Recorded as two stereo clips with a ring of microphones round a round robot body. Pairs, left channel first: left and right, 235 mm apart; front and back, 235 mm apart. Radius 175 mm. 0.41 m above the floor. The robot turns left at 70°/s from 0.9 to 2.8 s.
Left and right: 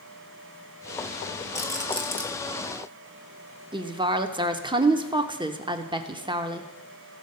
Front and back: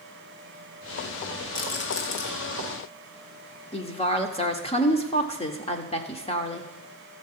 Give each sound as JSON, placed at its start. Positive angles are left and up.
{"t": 1.6, "sound": "a rattle", "azimuth_deg": 50, "distance_m": 2.0}
{"t": 3.7, "sound": "a woman speaking", "azimuth_deg": -40, "distance_m": 0.9}